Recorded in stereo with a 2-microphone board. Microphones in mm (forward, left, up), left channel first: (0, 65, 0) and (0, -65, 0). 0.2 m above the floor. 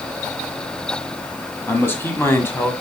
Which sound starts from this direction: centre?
A man speaking, at 1.7 s.